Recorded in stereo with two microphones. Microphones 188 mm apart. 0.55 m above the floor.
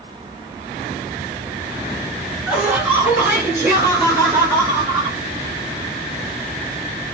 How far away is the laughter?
About 1.4 m.